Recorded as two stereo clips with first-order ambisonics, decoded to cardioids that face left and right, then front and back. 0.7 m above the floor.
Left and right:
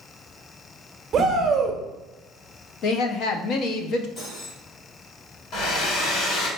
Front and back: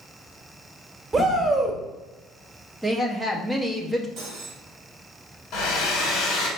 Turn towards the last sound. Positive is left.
turn(degrees=50)